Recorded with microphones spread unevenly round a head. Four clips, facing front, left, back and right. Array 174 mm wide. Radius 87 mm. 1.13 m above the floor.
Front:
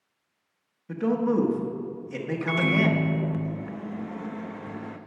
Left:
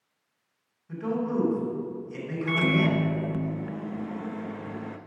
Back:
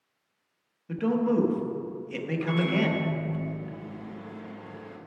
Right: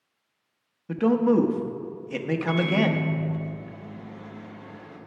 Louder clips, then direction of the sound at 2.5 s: Even, front 3 dB; 50° left.